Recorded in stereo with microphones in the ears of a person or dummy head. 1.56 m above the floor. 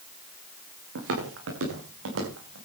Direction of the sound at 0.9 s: 75° right (ahead or behind).